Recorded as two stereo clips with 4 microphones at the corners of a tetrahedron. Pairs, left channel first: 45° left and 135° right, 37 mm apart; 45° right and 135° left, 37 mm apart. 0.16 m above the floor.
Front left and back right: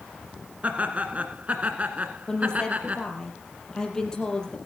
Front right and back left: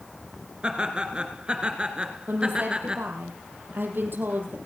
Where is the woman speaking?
115° left, 5 m.